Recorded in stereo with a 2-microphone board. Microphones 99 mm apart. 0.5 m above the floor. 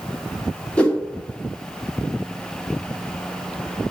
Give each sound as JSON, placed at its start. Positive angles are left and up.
{"t": 0.8, "sound": "a whoosh", "side_deg": 15, "distance_m": 1.1}